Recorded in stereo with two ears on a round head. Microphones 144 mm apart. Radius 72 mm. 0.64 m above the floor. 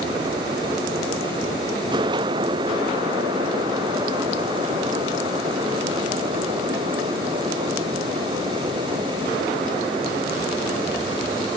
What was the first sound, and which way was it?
Only background noise.